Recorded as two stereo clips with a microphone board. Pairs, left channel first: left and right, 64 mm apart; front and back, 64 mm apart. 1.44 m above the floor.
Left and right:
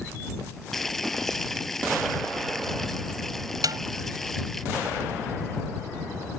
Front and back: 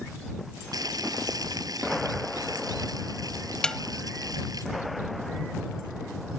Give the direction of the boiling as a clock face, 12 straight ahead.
6 o'clock.